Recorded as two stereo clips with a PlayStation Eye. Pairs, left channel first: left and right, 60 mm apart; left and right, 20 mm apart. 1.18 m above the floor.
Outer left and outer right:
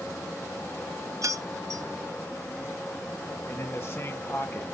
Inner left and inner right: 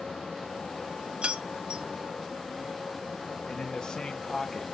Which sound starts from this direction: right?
Keys jangling, at 1.2 s.